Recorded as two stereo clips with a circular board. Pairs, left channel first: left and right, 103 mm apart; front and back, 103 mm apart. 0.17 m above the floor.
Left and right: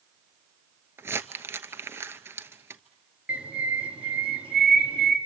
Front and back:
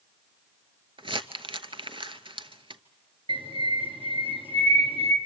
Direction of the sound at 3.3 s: 165° right.